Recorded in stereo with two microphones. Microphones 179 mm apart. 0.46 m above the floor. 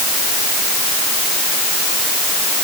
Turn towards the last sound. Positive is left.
No sound to turn to.